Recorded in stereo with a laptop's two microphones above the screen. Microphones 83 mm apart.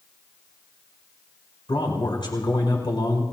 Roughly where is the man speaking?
Left.